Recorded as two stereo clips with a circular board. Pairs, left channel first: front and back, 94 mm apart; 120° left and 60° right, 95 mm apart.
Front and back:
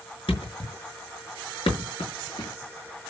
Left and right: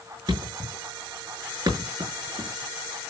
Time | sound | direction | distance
0.3 | a thud | 20° right | 5.5 m